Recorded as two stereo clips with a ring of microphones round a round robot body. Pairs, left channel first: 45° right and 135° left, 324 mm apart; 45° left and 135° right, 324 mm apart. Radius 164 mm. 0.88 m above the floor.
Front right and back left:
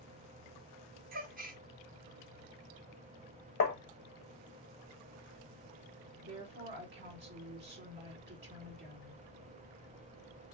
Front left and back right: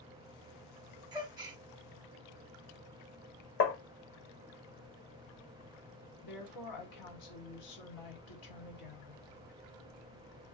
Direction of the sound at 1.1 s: 160° left.